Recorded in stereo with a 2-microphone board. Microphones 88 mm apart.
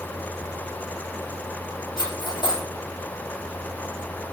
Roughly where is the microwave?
No microwave in this recording.